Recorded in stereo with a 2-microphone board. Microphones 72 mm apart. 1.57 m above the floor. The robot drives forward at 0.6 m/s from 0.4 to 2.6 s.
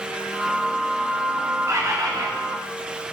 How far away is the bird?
About 1.3 m.